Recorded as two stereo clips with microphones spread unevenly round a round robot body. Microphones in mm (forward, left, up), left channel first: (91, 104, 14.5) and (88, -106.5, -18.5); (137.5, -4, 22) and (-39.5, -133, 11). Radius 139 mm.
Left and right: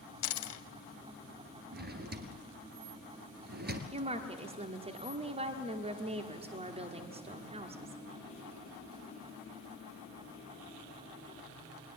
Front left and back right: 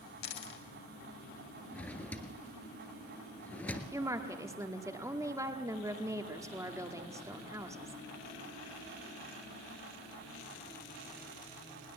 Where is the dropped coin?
95° left, 1.0 m.